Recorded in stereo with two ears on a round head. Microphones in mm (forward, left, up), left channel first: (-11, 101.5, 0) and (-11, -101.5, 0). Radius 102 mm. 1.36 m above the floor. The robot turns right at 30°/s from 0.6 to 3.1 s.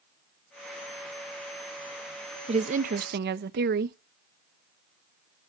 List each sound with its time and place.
2.5 s a woman speaking: 25° right (ahead or behind), 0.6 m; by 4.0 s 45° right (ahead or behind), 0.6 m